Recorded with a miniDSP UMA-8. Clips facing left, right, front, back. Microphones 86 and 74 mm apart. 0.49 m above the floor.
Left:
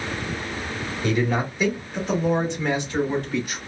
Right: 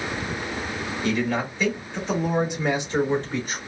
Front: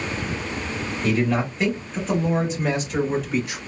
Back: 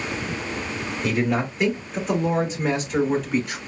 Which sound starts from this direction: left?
A man speaking, at 1.0 s.